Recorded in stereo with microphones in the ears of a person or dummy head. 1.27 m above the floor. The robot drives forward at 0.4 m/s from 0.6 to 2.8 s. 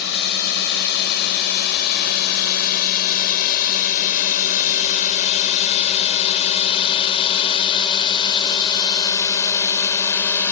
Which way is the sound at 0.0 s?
60° left (ahead or behind).